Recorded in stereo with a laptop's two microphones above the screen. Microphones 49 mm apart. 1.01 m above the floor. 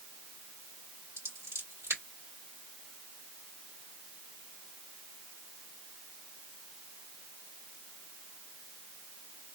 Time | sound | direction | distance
1.2 | scissors | 85° right | 2 m